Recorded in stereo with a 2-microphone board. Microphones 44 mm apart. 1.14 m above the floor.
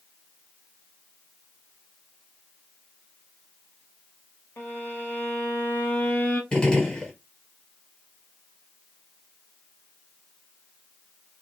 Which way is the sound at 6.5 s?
20° left (ahead or behind).